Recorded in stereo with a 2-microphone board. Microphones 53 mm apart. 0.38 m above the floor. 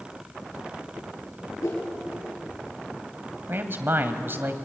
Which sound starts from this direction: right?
A man speaking, at 3.5 s.